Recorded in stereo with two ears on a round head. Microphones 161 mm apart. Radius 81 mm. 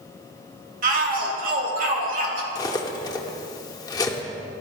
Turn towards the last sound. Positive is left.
turn(degrees=20)  # may be behind; listen again after turning